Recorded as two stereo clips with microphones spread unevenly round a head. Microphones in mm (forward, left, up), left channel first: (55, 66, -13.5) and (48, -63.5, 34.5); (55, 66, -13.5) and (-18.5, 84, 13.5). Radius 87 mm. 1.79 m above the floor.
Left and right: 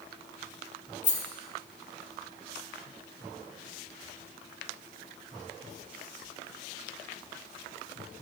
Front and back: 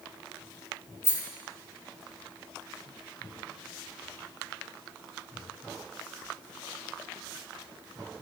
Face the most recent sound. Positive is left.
turn(degrees=50)